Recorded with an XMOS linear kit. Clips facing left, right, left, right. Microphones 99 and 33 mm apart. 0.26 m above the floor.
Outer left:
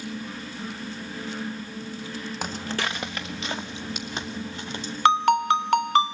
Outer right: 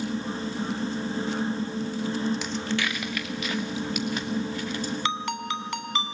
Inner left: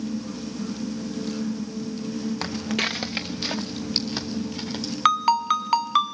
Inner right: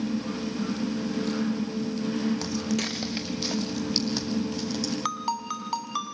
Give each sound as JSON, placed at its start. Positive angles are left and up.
{"t": 2.4, "sound": "footsteps", "side_deg": 50, "distance_m": 0.9}
{"t": 5.0, "sound": "a ringtone", "side_deg": 55, "distance_m": 0.9}